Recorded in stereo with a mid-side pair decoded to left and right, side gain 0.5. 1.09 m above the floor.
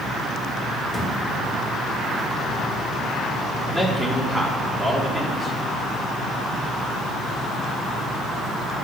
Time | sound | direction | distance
0.9 | a thud | 15° left | 5.5 m
3.7 | a man speaking | 15° right | 2.5 m